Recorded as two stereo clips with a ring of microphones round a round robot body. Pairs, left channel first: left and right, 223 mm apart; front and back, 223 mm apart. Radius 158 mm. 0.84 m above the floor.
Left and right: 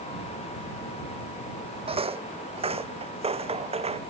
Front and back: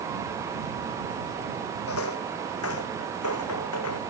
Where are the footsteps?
25° right; by 4.0 s 30° right.